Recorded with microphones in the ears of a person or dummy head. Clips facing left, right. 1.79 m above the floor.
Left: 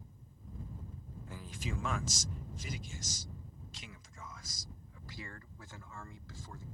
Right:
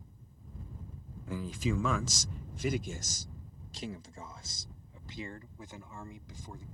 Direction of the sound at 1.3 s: 65° right (ahead or behind).